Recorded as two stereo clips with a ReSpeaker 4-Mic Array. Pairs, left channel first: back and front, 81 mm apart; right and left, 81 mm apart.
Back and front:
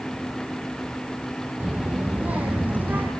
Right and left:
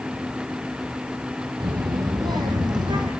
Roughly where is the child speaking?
Left.